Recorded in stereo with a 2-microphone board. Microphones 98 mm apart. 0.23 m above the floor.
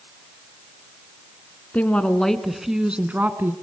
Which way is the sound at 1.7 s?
15° left (ahead or behind).